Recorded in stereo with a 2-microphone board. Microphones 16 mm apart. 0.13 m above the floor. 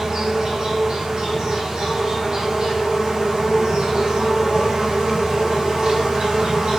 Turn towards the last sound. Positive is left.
turn(degrees=-65)  # may be behind; listen again after turning